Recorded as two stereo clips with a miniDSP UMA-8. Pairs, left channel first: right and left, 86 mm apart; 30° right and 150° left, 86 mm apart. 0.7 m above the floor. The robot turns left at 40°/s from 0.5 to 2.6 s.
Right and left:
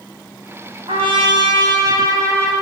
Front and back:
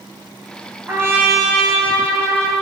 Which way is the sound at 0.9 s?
90° left.